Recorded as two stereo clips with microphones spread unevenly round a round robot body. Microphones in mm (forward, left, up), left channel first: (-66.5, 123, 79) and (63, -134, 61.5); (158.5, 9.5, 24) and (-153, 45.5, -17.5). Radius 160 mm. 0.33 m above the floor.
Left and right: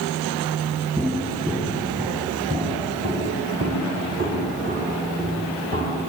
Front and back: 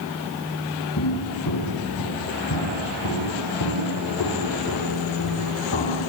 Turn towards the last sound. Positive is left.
turn(degrees=-5)